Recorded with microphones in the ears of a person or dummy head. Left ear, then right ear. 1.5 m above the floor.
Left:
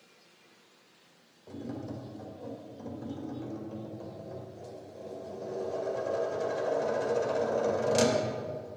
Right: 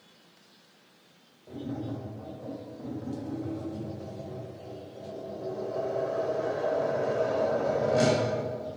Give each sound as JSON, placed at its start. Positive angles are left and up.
{"t": 1.5, "sound": "tapping", "side_deg": 80, "distance_m": 2.5}